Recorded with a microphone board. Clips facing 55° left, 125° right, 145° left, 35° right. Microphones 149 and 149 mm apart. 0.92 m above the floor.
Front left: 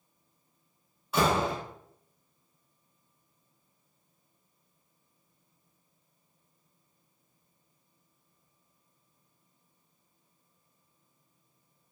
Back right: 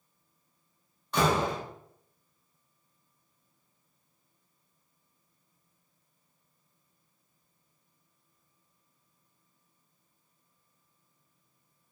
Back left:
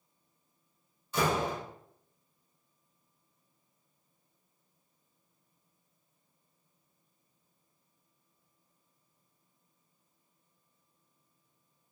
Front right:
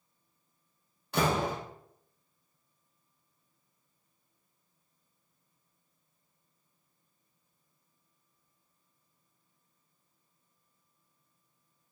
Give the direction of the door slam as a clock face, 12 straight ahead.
1 o'clock.